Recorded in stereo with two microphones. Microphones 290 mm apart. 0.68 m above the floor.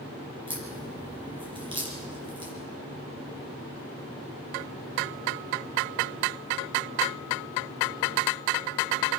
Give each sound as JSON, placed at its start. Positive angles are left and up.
{"t": 0.5, "sound": "a crack", "side_deg": -15, "distance_m": 6.0}